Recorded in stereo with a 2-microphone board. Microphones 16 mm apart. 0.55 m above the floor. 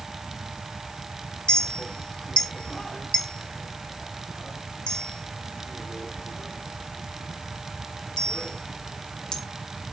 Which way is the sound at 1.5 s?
60° left (ahead or behind).